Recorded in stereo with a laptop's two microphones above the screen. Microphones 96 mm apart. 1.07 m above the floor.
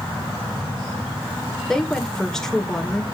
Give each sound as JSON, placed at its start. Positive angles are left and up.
{"t": 1.7, "sound": "a woman speaking", "side_deg": 5, "distance_m": 4.5}